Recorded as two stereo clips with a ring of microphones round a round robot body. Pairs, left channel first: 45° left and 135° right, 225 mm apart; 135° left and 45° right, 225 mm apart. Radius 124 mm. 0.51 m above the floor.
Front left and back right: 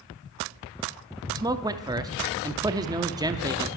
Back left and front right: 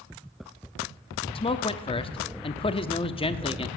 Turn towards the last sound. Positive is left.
turn(degrees=170)